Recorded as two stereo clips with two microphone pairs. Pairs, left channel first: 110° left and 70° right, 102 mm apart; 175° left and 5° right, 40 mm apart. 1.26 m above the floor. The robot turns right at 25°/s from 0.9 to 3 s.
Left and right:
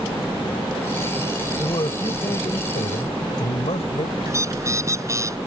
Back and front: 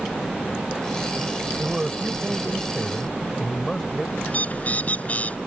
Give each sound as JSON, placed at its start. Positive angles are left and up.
{"t": 1.6, "sound": "a man speaking", "azimuth_deg": 60}
{"t": 4.3, "sound": "a bird", "azimuth_deg": -130}